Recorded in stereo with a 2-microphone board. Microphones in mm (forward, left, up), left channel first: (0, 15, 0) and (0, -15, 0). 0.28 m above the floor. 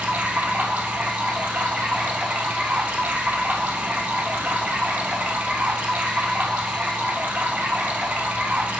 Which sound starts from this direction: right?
Running water, at 0.0 s.